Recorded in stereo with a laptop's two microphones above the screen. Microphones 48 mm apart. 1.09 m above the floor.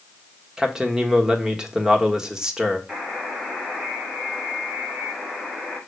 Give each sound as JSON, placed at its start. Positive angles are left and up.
{"t": 0.6, "sound": "a man speaking", "side_deg": -15, "distance_m": 1.3}
{"t": 2.9, "sound": "a buzzer", "side_deg": -15, "distance_m": 1.6}